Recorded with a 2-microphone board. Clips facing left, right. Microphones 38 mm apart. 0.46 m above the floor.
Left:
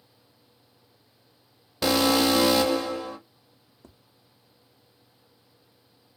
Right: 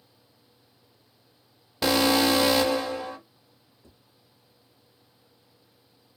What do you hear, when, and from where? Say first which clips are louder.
1.8 s an alarm: even; 5° right (ahead or behind), 1.1 m
3.8 s tapping: left 4 dB; 70° left (ahead or behind), 0.5 m